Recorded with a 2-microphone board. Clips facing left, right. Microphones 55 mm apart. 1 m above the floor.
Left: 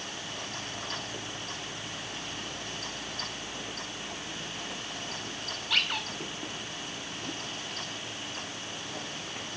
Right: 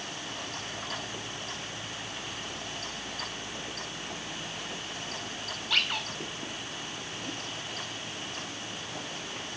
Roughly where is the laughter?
No laughter in this recording.